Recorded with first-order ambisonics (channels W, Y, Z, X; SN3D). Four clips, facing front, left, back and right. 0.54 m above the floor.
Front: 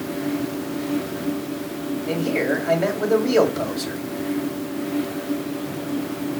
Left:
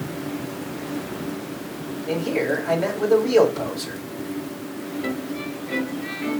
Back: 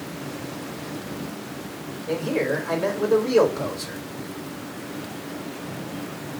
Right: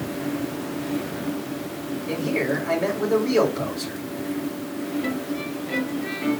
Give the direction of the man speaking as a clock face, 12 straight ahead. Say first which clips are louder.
Left 2 dB, front 1 dB; 11 o'clock.